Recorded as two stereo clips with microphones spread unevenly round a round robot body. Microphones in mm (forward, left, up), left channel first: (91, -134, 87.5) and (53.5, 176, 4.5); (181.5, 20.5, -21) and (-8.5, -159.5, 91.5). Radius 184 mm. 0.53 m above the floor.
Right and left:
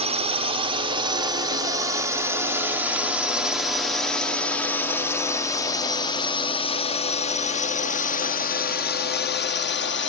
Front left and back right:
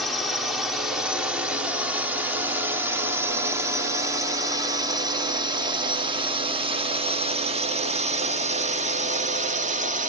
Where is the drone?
90° left; by 10.1 s 60° right.